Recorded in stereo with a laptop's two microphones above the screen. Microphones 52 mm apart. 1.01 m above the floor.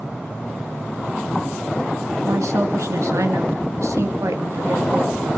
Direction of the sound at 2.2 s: 70° right (ahead or behind).